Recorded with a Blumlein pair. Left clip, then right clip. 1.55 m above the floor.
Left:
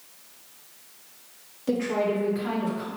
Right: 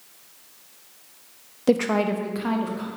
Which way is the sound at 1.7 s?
30° right.